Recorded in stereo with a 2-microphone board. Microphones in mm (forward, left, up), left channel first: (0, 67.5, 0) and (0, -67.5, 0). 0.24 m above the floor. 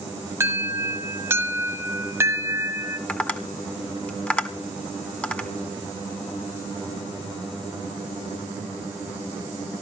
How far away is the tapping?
About 1.5 m.